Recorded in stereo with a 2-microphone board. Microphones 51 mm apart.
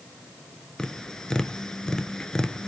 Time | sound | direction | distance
0.8 | tapping | 15° left (ahead or behind) | 0.8 m